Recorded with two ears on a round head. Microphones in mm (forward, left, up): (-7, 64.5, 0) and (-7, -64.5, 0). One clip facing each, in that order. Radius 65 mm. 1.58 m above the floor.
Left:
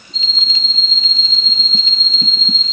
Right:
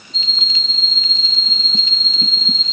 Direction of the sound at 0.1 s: 5° right (ahead or behind).